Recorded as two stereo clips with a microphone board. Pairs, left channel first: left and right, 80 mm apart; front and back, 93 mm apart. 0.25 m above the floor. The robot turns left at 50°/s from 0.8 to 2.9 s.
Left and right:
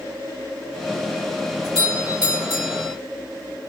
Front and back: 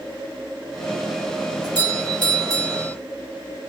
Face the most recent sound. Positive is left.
turn(degrees=130)